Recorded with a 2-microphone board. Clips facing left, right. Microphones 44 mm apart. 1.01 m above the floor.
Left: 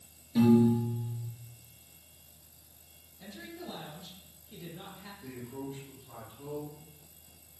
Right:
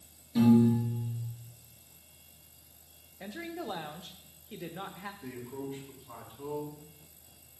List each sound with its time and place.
0.3 s a piano: 5° left (ahead or behind), 3.5 m
3.2 s a woman speaking: 55° right (ahead or behind), 0.9 m
5.2 s a man speaking: 30° right (ahead or behind), 4.5 m